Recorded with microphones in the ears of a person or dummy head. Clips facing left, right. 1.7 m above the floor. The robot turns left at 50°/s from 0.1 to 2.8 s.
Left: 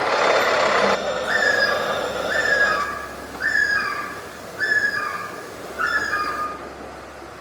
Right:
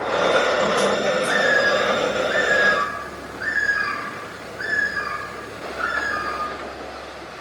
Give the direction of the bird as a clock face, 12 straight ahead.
8 o'clock.